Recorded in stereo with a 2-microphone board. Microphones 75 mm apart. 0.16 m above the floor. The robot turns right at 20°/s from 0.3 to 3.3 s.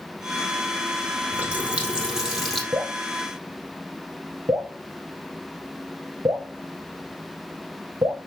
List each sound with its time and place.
1.3 s a running tap: 20° right (ahead or behind), 3 m; by 2.6 s 5° left (ahead or behind), 3 m
2.7 s dripping: 55° right (ahead or behind), 2 m; by 8.2 s 70° right (ahead or behind), 2 m